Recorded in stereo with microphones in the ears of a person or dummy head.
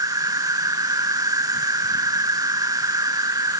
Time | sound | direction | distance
0.0 | an insect | 20° right (ahead or behind) | ?